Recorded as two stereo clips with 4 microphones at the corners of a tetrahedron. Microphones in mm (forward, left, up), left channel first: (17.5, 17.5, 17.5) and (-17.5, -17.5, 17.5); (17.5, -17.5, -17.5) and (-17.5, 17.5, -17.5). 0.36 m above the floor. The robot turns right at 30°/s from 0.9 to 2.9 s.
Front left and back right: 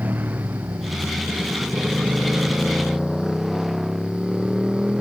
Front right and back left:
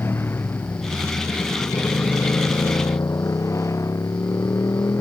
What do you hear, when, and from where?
0.0 s a motorcycle: 85° right; by 5.0 s 60° right